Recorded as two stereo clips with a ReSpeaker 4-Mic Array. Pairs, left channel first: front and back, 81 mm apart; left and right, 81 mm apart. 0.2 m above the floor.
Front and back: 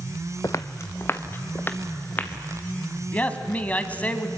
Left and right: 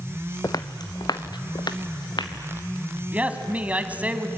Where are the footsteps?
45° left, 0.6 m; by 2.3 s 65° left, 2.5 m.